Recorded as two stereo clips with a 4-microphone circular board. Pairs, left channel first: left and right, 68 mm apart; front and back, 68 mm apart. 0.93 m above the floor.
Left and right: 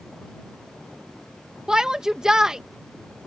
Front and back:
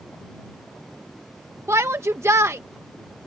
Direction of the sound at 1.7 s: 165° right.